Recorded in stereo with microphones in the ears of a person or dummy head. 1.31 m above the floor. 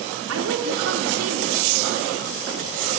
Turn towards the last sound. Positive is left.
turn(degrees=-70)  # may be behind; listen again after turning